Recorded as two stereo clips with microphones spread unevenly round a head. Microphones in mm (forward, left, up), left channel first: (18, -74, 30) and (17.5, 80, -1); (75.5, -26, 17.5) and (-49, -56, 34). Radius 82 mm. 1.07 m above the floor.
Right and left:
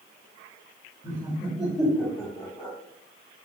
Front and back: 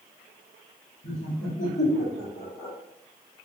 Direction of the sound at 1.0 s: 20° left.